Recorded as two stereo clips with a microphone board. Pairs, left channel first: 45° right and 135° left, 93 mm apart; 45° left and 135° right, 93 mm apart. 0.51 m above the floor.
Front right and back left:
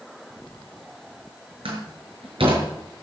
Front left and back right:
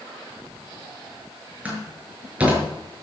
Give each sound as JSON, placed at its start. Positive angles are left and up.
{"t": 1.6, "sound": "a door slam", "azimuth_deg": 150, "distance_m": 6.0}